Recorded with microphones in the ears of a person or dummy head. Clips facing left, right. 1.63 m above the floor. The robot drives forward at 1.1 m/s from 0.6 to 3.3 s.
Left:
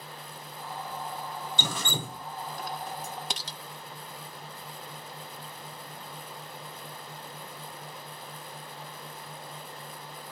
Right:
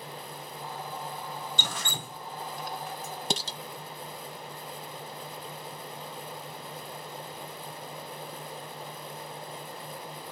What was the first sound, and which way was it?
Dripping, 85° left.